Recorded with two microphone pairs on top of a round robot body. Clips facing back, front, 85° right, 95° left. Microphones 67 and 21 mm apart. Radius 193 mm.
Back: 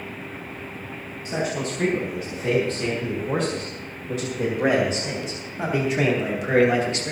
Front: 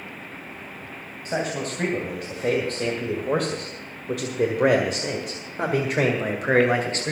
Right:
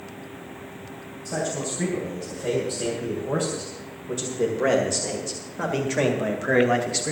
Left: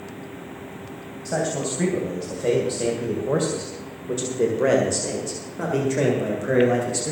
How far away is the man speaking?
About 3 m.